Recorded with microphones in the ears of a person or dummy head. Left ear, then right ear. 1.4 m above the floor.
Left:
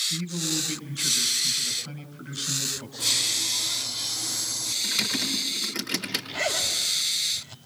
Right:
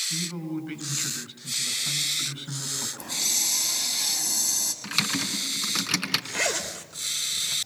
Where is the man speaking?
15° right (ahead or behind), 7 m.